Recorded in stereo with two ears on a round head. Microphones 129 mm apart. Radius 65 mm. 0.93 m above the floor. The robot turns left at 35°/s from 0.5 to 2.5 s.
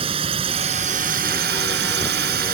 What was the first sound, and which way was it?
A drone, 40° right.